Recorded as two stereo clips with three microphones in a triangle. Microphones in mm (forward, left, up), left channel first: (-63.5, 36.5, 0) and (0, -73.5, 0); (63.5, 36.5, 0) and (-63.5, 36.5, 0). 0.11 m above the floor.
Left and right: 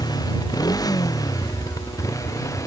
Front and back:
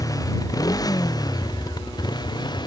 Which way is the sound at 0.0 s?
60° left.